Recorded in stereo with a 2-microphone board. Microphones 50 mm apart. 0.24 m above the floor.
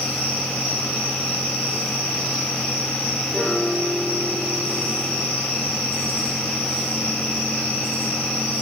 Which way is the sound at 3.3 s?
5° left (ahead or behind).